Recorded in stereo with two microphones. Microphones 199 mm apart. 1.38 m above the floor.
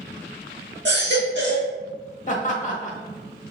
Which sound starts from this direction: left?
Laughter, at 2.3 s.